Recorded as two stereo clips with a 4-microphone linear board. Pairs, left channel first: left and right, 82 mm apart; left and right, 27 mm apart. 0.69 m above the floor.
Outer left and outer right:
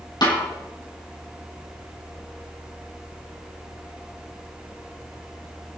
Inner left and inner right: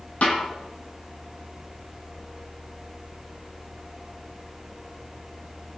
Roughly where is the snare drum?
Left.